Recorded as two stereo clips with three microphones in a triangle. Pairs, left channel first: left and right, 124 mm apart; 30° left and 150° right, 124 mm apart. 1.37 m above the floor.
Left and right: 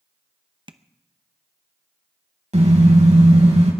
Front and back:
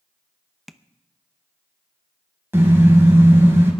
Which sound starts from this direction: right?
A car horn, at 2.5 s.